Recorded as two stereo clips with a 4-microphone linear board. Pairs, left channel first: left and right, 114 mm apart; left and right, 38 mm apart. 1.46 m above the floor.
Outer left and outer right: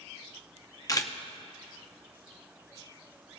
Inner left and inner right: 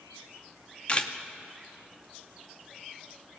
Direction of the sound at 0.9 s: 30° left (ahead or behind).